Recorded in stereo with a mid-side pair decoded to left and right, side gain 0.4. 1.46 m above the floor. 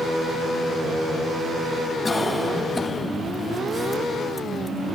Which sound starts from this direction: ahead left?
A cough, at 2.0 s.